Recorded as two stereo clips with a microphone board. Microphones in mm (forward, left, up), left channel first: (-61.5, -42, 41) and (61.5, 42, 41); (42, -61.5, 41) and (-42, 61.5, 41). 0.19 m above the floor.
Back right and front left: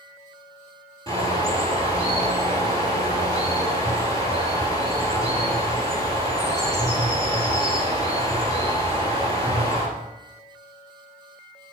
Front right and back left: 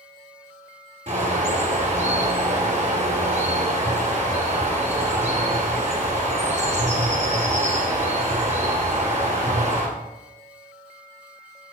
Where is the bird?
85° left, 2 m.